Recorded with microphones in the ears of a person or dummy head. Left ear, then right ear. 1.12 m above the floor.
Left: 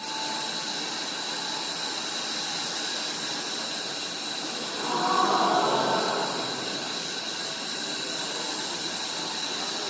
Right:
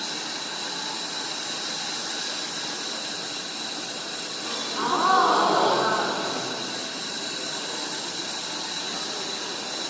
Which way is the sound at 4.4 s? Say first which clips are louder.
Right 7 dB; 60° right (ahead or behind).